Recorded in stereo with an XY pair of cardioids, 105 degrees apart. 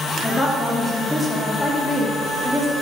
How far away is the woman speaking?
About 4 m.